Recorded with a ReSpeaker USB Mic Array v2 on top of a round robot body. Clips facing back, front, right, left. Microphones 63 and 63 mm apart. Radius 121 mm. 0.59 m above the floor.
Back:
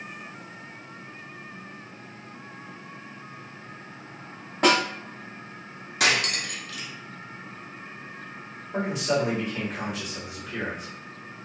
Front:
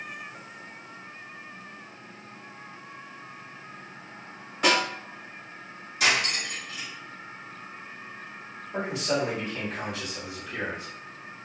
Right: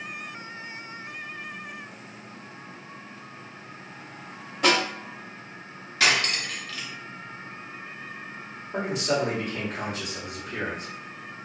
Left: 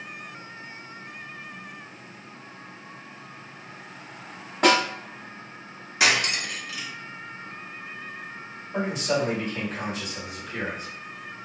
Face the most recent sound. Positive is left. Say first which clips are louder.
# back 2 dB, even
turn(degrees=-110)